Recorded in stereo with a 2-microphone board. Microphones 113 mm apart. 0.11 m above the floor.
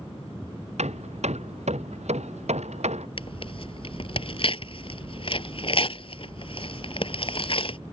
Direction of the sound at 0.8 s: 80° right.